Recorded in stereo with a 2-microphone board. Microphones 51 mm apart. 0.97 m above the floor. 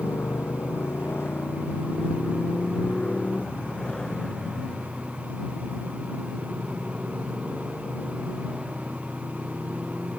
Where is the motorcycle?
60° left (ahead or behind); by 10.2 s 15° right (ahead or behind).